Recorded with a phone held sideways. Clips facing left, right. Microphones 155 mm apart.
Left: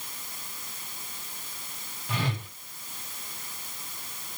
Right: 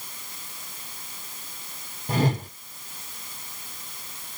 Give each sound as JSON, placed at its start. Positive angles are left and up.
{"t": 2.1, "sound": "a whoosh", "side_deg": -45, "distance_m": 0.8}